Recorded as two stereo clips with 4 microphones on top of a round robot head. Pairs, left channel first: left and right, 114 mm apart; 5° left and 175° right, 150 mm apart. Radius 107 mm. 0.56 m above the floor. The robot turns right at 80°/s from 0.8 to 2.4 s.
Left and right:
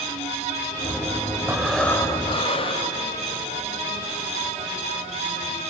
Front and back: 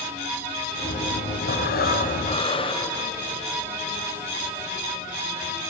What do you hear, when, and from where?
1.5 s breathing: 20° right, 2.5 m; by 3.0 s 55° left, 2.5 m